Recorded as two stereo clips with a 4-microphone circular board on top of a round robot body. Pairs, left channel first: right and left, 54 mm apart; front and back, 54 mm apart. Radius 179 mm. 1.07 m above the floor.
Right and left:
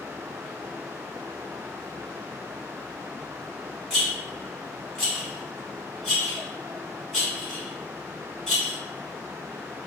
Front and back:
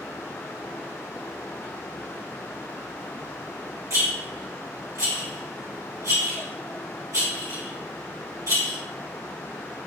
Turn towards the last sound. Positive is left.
turn(degrees=-170)